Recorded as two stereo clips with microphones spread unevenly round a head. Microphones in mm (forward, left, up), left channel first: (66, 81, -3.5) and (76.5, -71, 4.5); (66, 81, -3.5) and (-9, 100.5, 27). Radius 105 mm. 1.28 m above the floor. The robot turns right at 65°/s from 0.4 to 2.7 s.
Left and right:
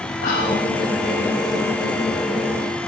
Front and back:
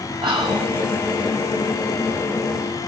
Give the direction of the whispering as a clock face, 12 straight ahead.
7 o'clock.